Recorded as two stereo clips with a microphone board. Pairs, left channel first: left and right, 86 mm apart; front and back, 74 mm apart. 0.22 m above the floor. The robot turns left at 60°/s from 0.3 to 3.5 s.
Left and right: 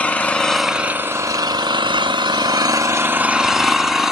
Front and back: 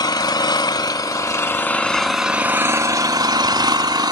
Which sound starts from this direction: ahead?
An engine running, at 0.0 s.